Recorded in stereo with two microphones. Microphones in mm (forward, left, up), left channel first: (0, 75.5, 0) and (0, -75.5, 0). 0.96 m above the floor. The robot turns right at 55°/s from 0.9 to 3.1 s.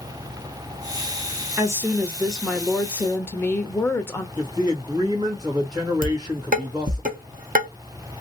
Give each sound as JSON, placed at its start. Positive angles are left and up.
{"t": 1.6, "sound": "a woman speaking", "side_deg": -20, "distance_m": 0.6}
{"t": 4.4, "sound": "a man speaking", "side_deg": -25, "distance_m": 1.3}
{"t": 6.0, "sound": "dishes clattering", "side_deg": -65, "distance_m": 0.7}